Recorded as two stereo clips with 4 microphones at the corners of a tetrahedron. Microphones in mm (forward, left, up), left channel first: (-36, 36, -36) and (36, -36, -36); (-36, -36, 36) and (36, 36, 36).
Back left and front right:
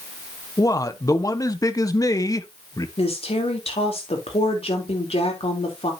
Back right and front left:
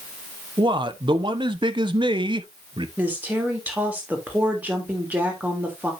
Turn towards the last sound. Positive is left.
turn(degrees=115)